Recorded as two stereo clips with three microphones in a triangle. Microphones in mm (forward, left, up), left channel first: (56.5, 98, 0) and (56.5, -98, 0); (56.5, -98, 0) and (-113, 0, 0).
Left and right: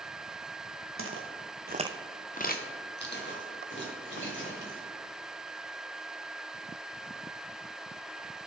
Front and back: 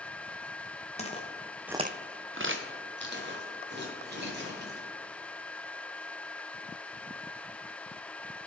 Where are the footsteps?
90° right, 1.4 m; by 4.9 s 115° left, 4.5 m.